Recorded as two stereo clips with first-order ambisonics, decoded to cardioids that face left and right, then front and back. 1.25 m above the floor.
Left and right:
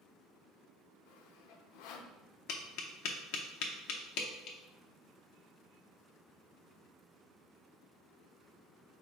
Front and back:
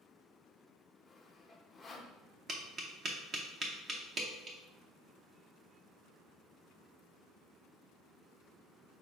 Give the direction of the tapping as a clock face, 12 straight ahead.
8 o'clock.